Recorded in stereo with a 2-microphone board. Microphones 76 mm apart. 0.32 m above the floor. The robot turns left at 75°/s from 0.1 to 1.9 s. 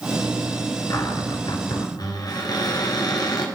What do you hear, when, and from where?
0.9 s a cupboard door: 140° left, 2 m; by 3.5 s 65° left, 2 m